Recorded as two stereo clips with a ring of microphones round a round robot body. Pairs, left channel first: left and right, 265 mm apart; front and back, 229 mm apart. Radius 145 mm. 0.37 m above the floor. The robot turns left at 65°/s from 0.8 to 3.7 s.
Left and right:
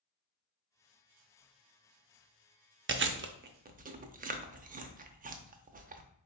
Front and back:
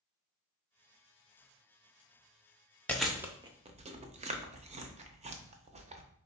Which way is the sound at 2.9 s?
80° right.